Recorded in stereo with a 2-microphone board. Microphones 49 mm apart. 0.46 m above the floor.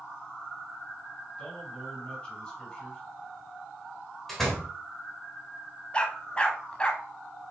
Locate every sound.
1.4 s a man speaking: 20° left (ahead or behind), 3 m
4.3 s a door slam: 5° left (ahead or behind), 3 m
5.9 s a dog barking: 25° left (ahead or behind), 1.1 m